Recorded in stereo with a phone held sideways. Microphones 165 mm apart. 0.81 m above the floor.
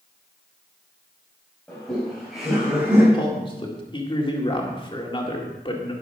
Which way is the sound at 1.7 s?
5° left (ahead or behind).